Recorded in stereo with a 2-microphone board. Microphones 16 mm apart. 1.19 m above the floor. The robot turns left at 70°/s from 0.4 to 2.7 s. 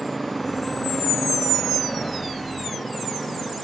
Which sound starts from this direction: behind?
A motorcycle, at 0.0 s.